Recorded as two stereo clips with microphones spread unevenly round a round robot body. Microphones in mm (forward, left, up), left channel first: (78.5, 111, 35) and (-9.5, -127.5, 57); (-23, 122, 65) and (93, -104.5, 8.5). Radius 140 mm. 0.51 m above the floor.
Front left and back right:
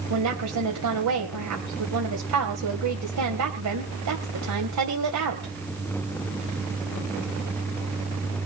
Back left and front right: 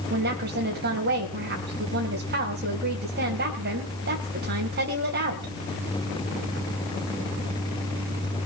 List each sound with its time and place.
0.1 s a woman speaking: 105° right, 2.5 m